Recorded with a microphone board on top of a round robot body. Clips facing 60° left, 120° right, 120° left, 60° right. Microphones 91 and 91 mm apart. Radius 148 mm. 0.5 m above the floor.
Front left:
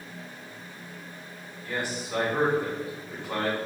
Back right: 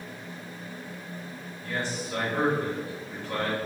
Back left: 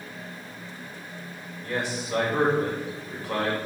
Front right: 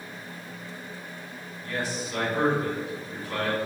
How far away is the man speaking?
About 2.0 m.